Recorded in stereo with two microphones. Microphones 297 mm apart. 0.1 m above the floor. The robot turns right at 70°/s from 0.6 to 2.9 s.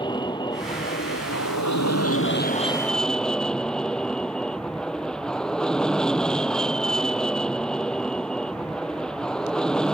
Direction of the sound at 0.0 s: 15° left.